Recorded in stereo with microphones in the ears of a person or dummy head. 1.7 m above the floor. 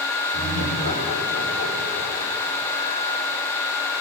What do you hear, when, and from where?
0.3 s laughter: 70° left (ahead or behind), 4 m